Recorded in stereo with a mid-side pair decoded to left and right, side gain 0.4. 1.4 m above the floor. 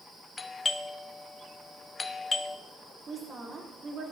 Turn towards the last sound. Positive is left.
turn(degrees=-45)